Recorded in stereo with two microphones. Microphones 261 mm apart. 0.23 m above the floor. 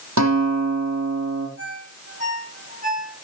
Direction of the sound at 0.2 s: 80° right.